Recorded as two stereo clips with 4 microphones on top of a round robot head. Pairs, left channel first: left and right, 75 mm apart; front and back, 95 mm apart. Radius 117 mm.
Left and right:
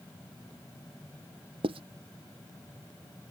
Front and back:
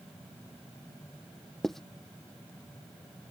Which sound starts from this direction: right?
Writing, at 1.6 s.